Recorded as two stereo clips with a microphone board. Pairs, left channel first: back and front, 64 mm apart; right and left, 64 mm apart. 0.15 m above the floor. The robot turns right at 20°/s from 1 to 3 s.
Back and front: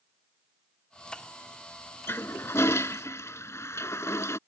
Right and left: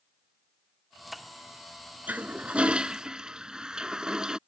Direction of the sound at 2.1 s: 145° left.